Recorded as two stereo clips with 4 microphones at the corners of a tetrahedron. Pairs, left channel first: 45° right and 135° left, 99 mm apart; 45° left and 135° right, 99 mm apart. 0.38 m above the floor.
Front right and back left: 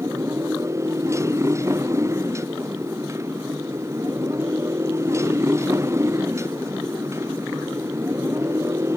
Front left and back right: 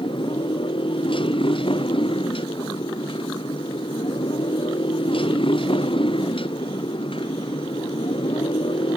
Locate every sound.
0.0 s a motorcycle: 75° left